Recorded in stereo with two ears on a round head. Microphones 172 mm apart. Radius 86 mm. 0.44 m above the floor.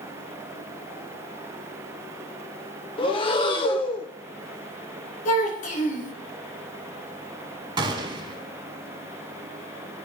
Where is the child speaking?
40° left (ahead or behind), 2.5 m.